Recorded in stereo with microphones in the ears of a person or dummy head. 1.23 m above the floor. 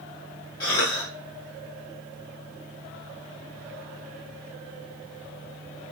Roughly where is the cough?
Left.